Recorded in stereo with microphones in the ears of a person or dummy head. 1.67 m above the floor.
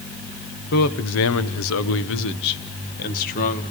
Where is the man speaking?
60° left (ahead or behind), 1.1 m; by 3.6 s 45° left (ahead or behind), 1.9 m.